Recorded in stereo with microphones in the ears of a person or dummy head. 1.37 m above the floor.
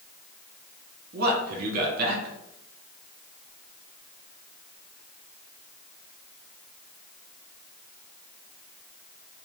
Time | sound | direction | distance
1.1 | a man speaking | 55° right (ahead or behind) | 0.9 m